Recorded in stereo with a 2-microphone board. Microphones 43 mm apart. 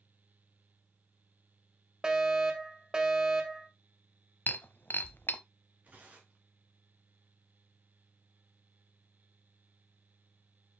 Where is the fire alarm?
15° right (ahead or behind), 1.9 m.